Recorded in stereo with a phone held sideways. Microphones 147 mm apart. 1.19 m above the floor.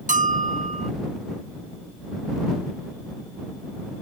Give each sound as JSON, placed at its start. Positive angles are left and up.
{"t": 0.1, "sound": "a bell", "side_deg": -60}